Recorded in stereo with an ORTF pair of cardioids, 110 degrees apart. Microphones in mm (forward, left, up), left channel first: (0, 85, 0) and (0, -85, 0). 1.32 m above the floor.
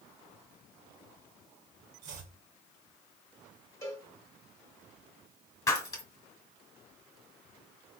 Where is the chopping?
55° right, 1.9 m.